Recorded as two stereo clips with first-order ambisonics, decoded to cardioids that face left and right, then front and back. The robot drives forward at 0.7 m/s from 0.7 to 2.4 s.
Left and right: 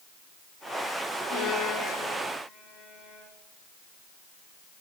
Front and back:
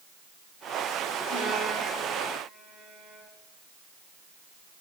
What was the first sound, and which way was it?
A violin, 135° left.